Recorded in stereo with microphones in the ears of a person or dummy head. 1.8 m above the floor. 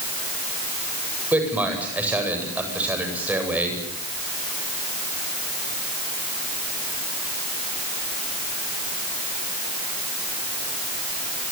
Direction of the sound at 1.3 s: 10° right (ahead or behind).